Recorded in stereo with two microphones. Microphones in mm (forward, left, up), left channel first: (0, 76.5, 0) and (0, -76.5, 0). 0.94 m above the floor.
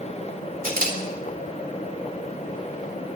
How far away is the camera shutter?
About 3 m.